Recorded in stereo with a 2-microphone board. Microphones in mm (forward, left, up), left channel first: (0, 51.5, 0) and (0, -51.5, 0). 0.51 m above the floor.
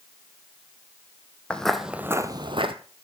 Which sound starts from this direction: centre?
Footsteps, at 1.5 s.